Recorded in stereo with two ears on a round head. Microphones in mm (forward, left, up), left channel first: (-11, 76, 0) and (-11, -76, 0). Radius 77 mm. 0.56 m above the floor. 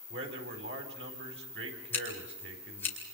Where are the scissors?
15° left (ahead or behind), 5 m.